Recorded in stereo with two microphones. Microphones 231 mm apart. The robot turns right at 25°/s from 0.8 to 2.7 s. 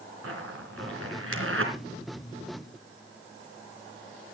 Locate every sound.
0.2 s a zipper: 80° right, 3 m; by 1.7 s 65° right (ahead or behind), 3 m